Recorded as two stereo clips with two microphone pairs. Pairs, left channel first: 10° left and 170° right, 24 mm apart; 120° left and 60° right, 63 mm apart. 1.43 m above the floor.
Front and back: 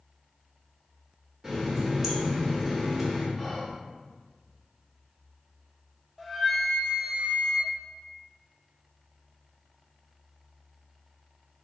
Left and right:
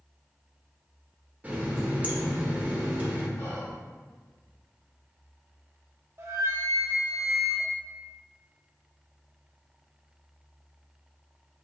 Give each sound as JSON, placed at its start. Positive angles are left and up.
{"t": 1.4, "sound": "a running tap", "azimuth_deg": -100, "distance_m": 0.8}
{"t": 3.4, "sound": "whispering", "azimuth_deg": 105, "distance_m": 1.4}
{"t": 6.2, "sound": "a flute", "azimuth_deg": -70, "distance_m": 0.7}